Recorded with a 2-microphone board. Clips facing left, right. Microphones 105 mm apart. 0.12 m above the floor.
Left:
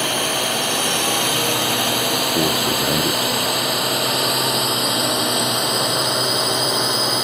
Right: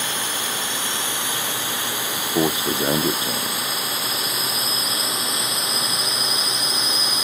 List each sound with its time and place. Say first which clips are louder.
0.0 s a drone: left 7 dB; 65° left (ahead or behind); by 7.2 s 60° left (ahead or behind)
2.2 s a man speaking: left 2 dB; 20° right (ahead or behind)